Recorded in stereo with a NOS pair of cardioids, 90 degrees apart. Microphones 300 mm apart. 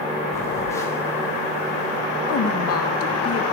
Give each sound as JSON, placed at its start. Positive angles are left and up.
{"t": 0.3, "sound": "a phone buzzing", "azimuth_deg": 10, "distance_m": 4.0}
{"t": 2.3, "sound": "a woman speaking", "azimuth_deg": 50, "distance_m": 1.9}